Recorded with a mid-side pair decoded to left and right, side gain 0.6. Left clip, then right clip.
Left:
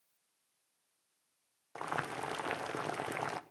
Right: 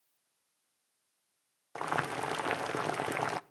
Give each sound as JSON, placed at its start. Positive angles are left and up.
{"t": 1.8, "sound": "boiling", "azimuth_deg": -20, "distance_m": 0.7}